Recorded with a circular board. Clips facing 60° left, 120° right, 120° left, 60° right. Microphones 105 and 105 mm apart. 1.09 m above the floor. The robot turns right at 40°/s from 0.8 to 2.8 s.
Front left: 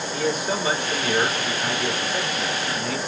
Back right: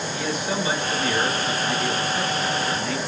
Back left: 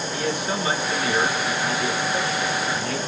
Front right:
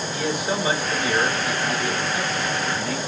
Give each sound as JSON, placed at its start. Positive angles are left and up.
{"t": 0.1, "sound": "a man speaking", "azimuth_deg": 15, "distance_m": 2.5}